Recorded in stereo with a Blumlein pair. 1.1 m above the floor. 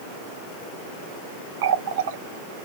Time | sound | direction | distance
1.6 | a running tap | 50° right | 0.5 m